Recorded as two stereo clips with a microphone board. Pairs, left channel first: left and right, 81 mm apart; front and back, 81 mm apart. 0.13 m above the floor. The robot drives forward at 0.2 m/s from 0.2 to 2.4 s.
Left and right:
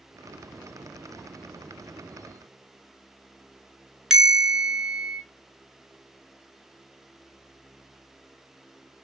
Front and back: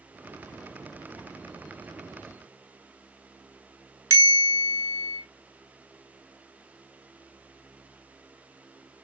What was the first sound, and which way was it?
A bell, 170° right.